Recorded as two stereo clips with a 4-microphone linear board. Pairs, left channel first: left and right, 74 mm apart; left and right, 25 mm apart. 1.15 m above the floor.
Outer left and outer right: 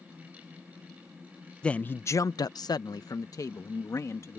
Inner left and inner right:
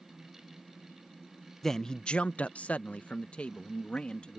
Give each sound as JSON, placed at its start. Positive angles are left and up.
{"t": 1.6, "sound": "a man speaking", "side_deg": 15}